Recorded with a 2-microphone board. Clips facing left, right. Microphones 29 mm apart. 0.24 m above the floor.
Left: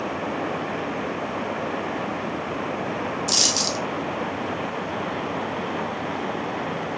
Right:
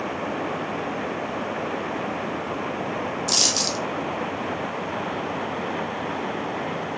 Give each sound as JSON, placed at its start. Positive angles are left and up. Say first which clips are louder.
{"t": 3.3, "sound": "a dropped coin", "louder": "even", "side_deg": 0, "distance_m": 0.9}